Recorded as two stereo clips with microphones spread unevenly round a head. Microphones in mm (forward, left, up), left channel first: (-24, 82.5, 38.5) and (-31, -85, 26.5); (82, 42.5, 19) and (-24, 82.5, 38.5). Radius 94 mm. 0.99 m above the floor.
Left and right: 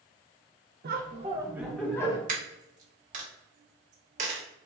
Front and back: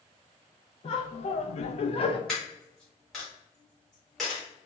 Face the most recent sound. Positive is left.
turn(degrees=-120)